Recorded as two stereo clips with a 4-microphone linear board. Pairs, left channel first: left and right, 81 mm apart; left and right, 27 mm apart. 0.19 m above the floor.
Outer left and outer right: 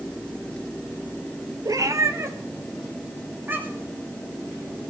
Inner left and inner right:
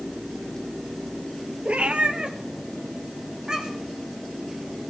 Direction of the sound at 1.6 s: 50° right (ahead or behind).